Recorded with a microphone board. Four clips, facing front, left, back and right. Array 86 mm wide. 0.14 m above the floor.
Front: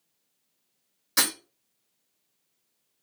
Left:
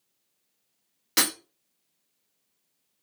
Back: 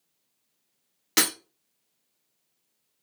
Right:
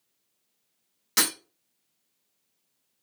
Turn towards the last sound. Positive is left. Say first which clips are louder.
# left 1 dB, back 2 dB
turn(degrees=170)